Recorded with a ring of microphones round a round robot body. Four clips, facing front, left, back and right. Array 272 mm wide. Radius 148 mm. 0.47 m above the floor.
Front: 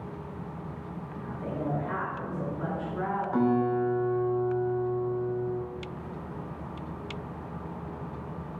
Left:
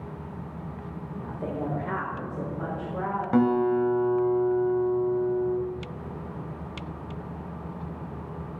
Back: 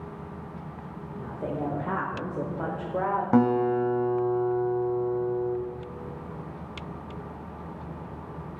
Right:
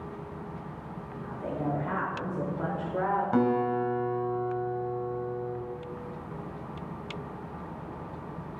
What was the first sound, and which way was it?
A woman speaking, 125° left.